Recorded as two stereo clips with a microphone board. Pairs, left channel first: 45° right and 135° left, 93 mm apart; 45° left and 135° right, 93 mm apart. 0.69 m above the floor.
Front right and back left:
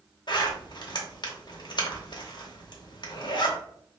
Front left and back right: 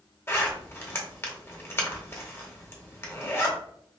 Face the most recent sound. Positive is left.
turn(degrees=-15)